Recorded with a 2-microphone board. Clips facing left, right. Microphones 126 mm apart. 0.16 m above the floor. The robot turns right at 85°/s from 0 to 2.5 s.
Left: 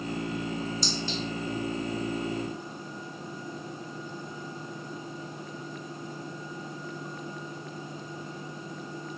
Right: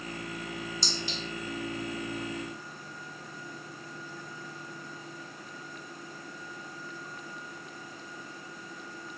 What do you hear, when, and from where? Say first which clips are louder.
0.8 s a clink: left 4 dB; 30° right (ahead or behind), 0.8 m; by 1.2 s 15° right (ahead or behind), 0.8 m